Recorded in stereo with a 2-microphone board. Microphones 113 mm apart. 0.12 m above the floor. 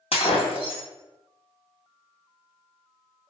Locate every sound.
0.1 s breaking glass: 65° left (ahead or behind), 1.4 m